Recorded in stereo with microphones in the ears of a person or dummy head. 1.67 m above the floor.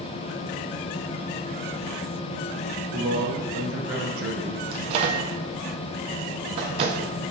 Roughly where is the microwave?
Right.